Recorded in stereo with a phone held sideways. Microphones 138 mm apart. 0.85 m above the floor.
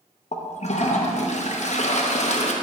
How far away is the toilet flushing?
About 0.7 m.